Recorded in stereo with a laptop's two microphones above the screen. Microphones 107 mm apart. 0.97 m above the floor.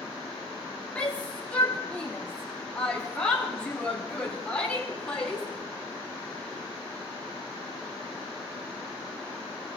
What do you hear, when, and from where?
0.9 s a shout: 10° left (ahead or behind), 2 m